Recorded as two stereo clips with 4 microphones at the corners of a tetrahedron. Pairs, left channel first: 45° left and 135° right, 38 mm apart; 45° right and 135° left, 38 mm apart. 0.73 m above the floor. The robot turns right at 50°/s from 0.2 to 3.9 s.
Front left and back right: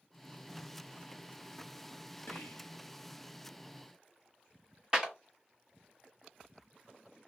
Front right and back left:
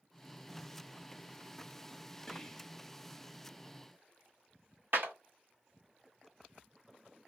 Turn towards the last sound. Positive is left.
turn(degrees=155)